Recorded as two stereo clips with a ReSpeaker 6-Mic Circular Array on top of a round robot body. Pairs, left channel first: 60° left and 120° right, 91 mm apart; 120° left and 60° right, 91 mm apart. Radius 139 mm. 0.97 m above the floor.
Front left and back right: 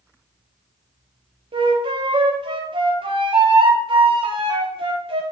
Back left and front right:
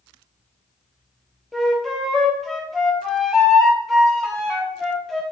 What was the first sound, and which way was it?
A flute, 150° right.